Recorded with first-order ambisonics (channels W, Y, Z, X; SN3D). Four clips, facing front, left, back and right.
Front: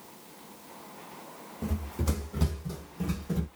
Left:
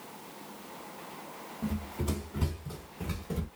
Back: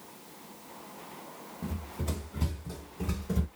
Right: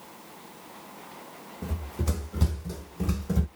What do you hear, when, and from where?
1.6 s running footsteps: 30° right, 1.6 m; by 3.5 s 100° right, 1.5 m